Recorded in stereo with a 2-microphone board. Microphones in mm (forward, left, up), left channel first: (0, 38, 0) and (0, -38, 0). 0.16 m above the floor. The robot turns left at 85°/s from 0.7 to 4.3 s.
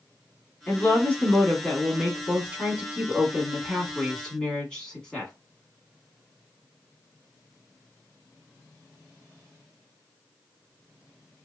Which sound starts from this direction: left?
A woman speaking, at 0.7 s.